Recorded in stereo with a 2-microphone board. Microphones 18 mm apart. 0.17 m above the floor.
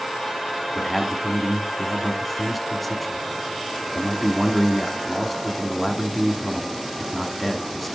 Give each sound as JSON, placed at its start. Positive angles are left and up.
{"t": 0.8, "sound": "a man speaking", "side_deg": 5, "distance_m": 1.8}